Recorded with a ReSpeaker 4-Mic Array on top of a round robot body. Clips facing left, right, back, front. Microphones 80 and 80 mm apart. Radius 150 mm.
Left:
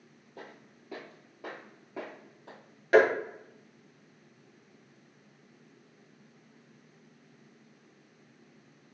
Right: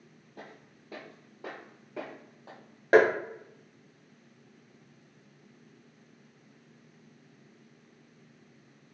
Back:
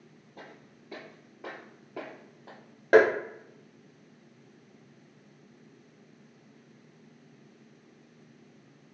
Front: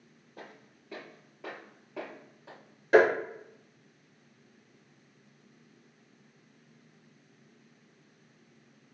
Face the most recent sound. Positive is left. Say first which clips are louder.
# right 1 dB, back 2 dB
turn(degrees=-145)